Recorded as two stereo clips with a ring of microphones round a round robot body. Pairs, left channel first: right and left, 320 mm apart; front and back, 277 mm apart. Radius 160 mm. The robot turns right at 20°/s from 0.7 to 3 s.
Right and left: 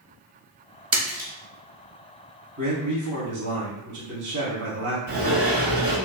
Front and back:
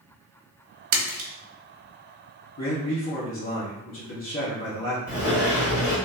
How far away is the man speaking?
About 1.3 m.